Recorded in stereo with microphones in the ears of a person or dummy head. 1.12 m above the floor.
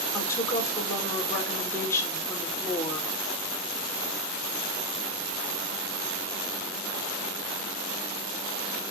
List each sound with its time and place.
0.1 s a woman speaking: 15° left (ahead or behind), 4 m